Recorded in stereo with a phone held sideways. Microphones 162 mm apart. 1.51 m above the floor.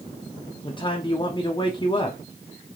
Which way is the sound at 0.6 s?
30° left (ahead or behind).